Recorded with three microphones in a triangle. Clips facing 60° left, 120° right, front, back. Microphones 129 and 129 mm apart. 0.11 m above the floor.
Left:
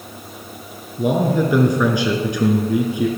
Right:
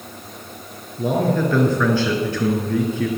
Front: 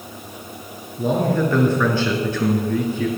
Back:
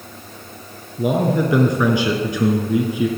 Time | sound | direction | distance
1.0 | a man speaking | 115° left | 1.2 m